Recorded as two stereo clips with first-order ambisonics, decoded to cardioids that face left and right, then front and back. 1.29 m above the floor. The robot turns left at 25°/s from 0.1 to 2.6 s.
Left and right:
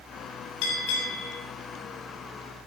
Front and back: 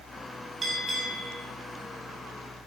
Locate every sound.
0.6 s a bell: 105° left, 4.5 m; by 1.4 s 85° left, 4.5 m